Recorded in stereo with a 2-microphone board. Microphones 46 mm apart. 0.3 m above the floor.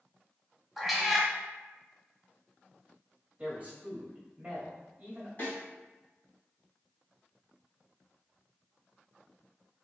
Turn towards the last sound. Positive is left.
turn(degrees=40)  # may be behind; listen again after turning